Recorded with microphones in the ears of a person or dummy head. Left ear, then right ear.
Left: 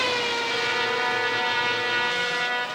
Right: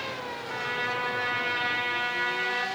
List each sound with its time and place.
0.5 s a trumpet: 15° left (ahead or behind), 2.5 m